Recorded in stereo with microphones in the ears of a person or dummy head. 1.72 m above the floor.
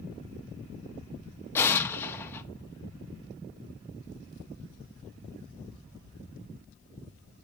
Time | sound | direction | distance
1.6 | an explosion | 15° left (ahead or behind) | 0.9 m